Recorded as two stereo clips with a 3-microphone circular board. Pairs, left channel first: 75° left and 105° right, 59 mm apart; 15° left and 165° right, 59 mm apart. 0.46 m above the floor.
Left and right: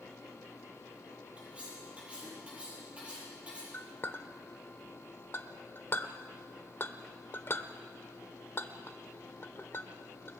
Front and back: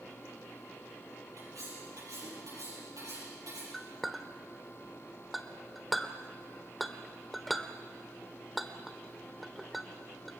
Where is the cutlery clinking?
175° right, 9 m.